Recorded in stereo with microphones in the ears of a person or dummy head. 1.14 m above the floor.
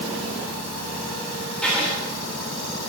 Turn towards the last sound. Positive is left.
turn(degrees=0)  # may be behind; listen again after turning